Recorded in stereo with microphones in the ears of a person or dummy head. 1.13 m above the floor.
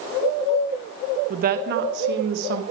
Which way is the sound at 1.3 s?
40° right (ahead or behind).